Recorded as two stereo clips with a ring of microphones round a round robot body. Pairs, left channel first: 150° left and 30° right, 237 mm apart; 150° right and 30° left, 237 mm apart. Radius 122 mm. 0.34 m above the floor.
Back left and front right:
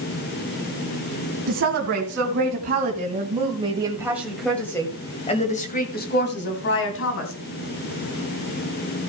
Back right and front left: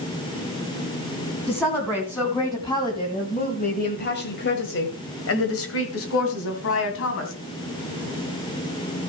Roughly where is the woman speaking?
Ahead right.